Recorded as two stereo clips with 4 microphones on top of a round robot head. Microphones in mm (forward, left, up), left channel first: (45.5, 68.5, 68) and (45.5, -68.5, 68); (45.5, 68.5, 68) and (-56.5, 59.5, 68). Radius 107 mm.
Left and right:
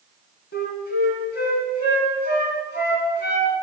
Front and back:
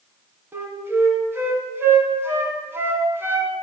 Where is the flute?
120° left, 2 m.